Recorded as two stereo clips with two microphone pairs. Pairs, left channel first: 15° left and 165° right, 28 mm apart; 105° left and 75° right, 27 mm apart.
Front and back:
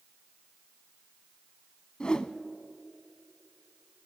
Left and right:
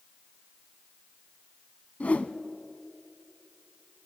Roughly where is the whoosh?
Left.